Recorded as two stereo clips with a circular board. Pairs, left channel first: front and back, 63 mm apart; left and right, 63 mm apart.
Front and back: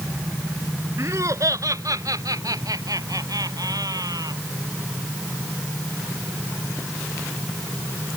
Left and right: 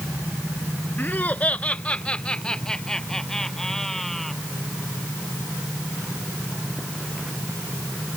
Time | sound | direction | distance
1.0 | laughter | 150° left | ?